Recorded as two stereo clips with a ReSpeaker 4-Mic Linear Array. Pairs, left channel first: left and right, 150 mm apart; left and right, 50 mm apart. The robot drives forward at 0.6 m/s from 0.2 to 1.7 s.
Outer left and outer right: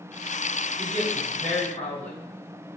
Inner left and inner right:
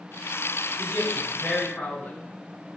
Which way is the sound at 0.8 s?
50° left (ahead or behind).